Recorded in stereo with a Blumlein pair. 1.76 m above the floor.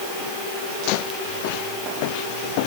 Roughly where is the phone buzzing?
No phone buzzing in this recording.